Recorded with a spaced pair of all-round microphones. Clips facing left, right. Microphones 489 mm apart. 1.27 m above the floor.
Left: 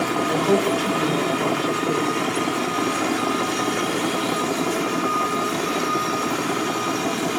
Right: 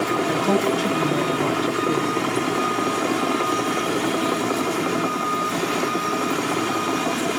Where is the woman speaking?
40° right (ahead or behind), 5.5 m.